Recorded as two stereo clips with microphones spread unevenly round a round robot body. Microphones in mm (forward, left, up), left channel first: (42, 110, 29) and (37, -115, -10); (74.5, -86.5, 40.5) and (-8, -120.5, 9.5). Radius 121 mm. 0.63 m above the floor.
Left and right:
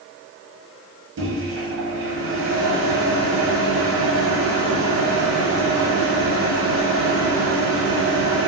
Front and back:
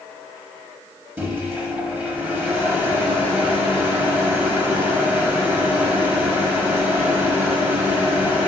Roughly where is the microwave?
Right.